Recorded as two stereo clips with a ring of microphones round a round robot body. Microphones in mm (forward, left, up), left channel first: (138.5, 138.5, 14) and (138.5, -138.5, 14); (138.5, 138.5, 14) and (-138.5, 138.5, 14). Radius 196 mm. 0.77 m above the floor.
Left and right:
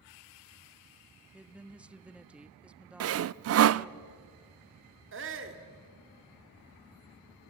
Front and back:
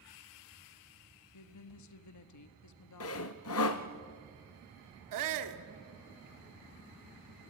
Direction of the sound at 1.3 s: 5° right.